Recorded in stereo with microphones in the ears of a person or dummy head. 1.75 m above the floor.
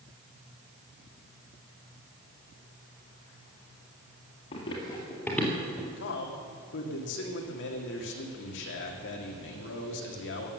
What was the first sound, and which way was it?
Running footsteps, 30° left (ahead or behind).